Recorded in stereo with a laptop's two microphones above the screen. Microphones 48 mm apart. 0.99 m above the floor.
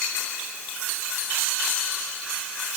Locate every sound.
Only background noise.